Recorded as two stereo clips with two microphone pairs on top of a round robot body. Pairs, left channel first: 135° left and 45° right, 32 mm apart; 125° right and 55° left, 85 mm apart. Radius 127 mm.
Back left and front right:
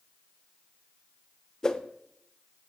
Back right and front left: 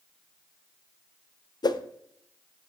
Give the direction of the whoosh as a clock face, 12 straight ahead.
5 o'clock.